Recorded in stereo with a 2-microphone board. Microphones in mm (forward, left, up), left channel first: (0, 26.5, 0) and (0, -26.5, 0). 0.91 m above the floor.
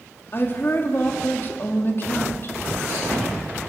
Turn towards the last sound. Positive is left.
turn(degrees=45)  # may be behind; listen again after turning